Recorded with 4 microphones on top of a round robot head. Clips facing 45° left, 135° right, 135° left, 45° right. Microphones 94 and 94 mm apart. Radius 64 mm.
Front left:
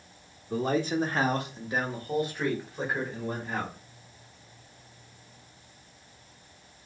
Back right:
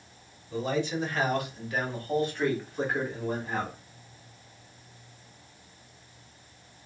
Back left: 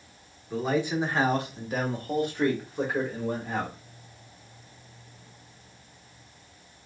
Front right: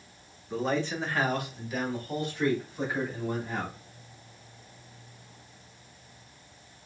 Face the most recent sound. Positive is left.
turn(degrees=140)